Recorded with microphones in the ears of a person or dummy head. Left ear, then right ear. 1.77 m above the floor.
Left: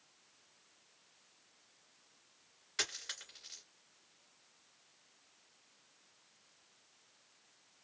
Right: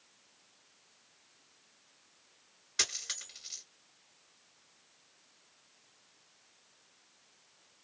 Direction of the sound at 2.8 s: 25° left (ahead or behind).